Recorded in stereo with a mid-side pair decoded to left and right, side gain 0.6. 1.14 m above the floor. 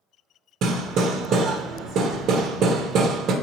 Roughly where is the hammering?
Ahead right.